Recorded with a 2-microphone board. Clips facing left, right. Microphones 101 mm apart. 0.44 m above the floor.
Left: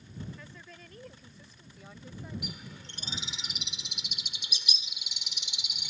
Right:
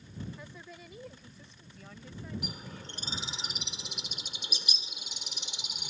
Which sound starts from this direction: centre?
A woman speaking, at 0.4 s.